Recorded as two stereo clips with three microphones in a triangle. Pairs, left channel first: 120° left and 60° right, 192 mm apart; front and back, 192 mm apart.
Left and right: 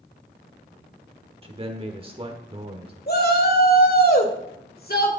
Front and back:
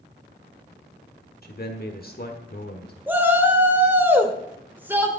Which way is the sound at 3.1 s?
100° left.